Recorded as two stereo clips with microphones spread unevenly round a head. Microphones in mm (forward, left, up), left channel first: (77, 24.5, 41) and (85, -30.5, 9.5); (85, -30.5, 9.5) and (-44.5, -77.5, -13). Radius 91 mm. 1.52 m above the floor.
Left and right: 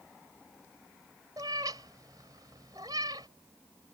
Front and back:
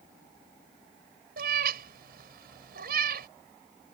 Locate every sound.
1.4 s a cat meowing: 160° right